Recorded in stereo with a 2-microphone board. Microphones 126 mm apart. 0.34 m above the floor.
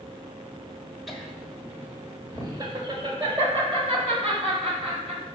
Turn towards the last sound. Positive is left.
turn(degrees=-60)  # may be behind; listen again after turning